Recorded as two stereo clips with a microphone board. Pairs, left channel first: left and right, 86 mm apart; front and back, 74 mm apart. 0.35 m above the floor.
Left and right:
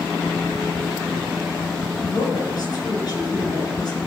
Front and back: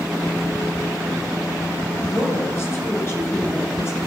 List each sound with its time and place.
2.0 s a woman speaking: 55° left, 5.5 m